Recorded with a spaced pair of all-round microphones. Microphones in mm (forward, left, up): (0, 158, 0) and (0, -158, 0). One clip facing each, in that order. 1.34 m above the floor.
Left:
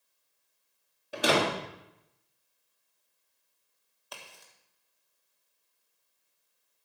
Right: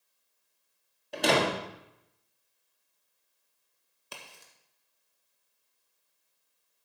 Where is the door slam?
5° left (ahead or behind), 2 m.